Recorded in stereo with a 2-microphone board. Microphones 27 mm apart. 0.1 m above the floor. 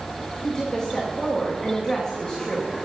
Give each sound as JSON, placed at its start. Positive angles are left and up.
{"t": 0.4, "sound": "a woman speaking", "side_deg": 30, "distance_m": 8.0}